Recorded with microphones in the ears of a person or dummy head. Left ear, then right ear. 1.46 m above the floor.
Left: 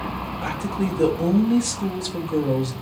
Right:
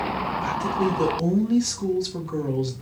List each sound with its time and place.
0.4 s a woman speaking: 5° left (ahead or behind), 1.1 m